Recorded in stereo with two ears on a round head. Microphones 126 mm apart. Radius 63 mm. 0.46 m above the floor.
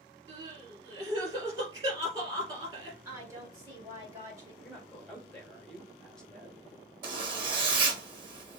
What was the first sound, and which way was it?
Crying, 25° right (ahead or behind).